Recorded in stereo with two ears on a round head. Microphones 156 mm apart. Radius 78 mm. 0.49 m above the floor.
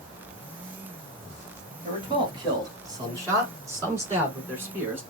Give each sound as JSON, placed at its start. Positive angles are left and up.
{"t": 1.8, "sound": "a man speaking", "side_deg": -30, "distance_m": 3.0}